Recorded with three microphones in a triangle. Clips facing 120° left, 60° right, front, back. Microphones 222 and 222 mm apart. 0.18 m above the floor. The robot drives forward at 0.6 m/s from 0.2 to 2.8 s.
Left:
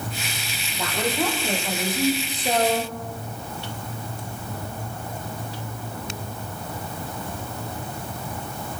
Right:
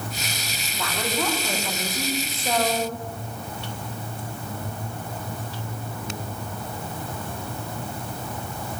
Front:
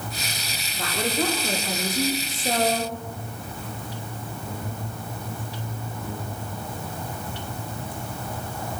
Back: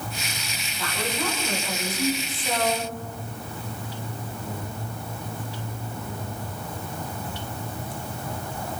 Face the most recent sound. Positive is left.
turn(degrees=45)